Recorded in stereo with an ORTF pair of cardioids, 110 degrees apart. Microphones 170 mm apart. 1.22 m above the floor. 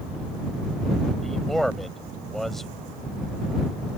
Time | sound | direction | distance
1.2 | a man speaking | straight ahead | ?